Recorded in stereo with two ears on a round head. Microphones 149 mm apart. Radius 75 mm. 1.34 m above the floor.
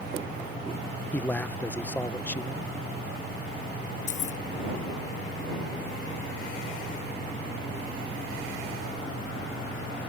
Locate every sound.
1.1 s a man speaking: 10° left (ahead or behind)
4.1 s keys jangling: 50° left (ahead or behind)